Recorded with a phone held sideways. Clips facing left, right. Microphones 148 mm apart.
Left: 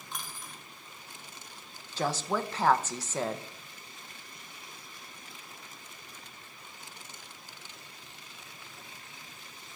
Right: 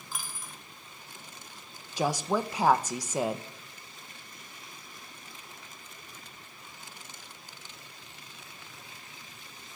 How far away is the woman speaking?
About 0.7 m.